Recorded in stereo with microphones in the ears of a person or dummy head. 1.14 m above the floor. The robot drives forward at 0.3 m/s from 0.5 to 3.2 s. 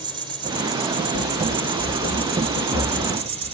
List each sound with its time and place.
0.0 s an insect: 25° right (ahead or behind), 3 m; by 3.5 s 35° right (ahead or behind), 2 m
1.1 s running footsteps: 25° right (ahead or behind), 1.3 m; by 3.5 s 15° right (ahead or behind), 4 m